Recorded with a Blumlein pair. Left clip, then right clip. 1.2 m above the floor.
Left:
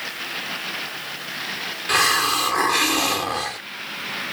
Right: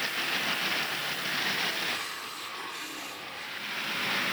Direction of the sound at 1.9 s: 40° left.